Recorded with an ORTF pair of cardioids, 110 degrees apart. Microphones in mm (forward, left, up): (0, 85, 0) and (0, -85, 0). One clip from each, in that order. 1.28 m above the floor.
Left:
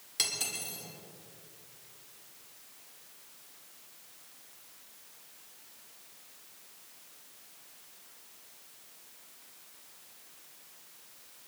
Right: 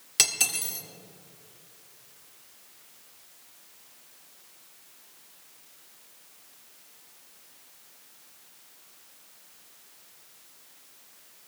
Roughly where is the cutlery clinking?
Ahead right.